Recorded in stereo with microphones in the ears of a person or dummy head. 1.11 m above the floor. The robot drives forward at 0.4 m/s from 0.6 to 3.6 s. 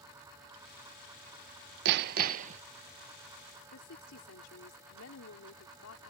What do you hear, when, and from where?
1.9 s hammering: 60° right (ahead or behind); by 2.6 s 40° right (ahead or behind)
3.7 s a woman speaking: 75° left (ahead or behind)